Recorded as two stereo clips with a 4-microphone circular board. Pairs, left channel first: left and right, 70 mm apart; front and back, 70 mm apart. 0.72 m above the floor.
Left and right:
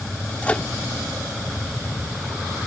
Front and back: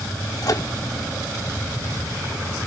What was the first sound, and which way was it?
A microwave, 20° left.